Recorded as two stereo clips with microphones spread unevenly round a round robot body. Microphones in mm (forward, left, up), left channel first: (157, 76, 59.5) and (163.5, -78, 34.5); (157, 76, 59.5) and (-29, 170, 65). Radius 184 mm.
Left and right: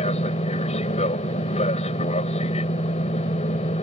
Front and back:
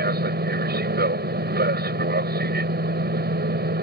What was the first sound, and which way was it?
An aircraft, 140° left.